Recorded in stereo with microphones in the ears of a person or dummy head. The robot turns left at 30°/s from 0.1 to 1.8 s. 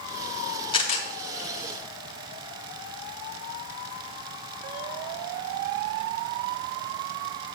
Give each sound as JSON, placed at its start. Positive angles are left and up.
{"t": 0.7, "sound": "a camera shutter", "side_deg": 25, "distance_m": 1.0}